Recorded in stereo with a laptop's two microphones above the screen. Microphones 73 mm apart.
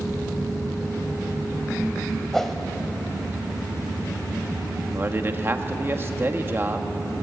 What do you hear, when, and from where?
2.3 s a whoosh: 5° left (ahead or behind), 1.0 m
4.9 s a man speaking: 30° right (ahead or behind), 1.2 m